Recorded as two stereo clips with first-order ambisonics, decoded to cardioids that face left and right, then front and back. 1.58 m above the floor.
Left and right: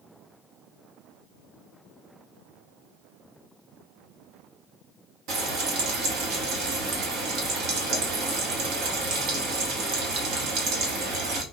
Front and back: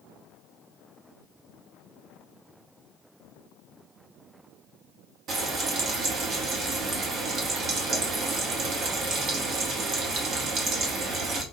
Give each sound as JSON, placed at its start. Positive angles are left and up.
{"t": 5.3, "sound": "frying", "azimuth_deg": -125, "distance_m": 0.9}